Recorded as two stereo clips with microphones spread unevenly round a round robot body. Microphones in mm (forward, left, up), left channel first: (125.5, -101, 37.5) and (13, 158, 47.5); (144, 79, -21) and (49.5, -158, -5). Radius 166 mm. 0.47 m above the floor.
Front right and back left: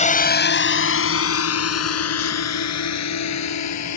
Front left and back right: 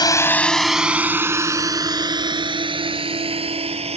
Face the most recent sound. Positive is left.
turn(degrees=-45)